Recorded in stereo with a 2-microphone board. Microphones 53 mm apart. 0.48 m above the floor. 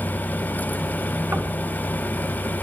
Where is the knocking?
45° right (ahead or behind), 3 m.